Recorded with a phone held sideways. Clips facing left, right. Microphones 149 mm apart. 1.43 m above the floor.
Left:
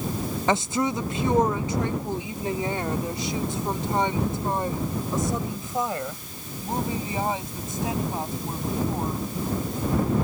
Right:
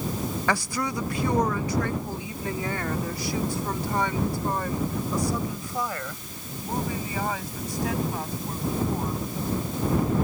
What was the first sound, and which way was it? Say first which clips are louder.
A woman speaking: left 5 dB; 20° left (ahead or behind).